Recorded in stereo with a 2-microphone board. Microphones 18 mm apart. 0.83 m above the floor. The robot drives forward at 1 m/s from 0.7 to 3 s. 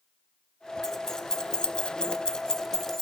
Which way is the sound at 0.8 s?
25° left (ahead or behind).